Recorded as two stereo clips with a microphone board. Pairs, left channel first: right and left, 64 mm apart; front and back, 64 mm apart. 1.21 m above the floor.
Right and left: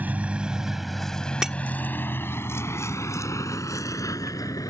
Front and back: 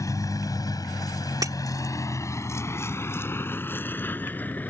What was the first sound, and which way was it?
A vehicle, 25° left.